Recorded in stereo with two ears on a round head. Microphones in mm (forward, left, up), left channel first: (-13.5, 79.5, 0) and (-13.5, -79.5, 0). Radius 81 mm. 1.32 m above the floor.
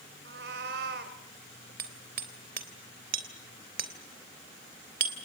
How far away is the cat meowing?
About 3 m.